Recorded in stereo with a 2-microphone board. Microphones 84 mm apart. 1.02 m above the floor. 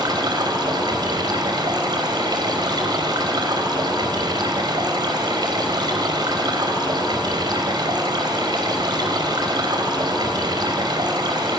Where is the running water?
60° right (ahead or behind), 3.5 m.